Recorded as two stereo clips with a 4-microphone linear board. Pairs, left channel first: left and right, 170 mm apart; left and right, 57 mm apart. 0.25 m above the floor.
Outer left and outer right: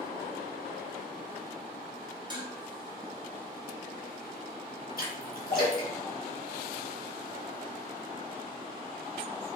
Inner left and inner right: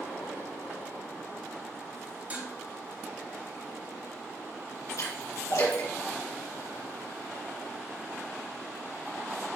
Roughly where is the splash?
Left.